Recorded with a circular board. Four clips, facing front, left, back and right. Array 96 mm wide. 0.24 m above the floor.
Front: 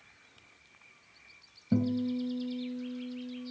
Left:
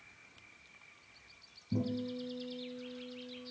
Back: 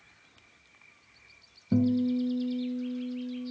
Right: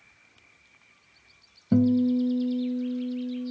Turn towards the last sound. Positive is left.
turn(degrees=-90)